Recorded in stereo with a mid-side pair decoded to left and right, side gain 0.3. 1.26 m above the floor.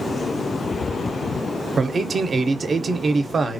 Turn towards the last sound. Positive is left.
turn(degrees=-55)